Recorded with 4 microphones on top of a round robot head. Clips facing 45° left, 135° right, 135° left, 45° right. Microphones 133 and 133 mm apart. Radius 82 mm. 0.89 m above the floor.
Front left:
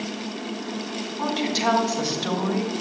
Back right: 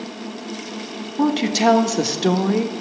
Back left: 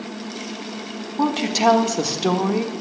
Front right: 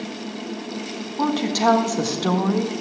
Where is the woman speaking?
150° right, 1.5 m.